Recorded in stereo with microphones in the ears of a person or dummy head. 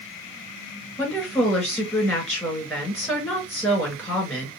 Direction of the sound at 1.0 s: 15° left (ahead or behind).